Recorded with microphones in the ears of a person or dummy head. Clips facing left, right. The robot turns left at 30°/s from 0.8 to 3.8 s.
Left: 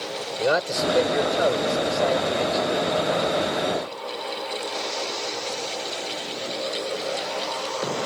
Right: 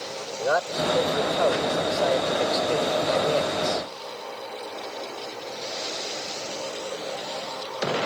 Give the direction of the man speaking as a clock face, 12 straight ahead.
11 o'clock.